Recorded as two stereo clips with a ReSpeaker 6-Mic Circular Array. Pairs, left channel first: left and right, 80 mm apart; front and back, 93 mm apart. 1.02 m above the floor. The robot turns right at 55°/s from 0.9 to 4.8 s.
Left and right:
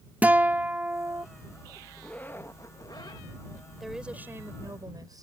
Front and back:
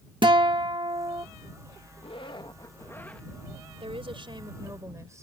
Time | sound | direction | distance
0.2 | a guitar | 155° right | ?
2.0 | a zipper | 10° left | ?
3.8 | a woman speaking | straight behind | ?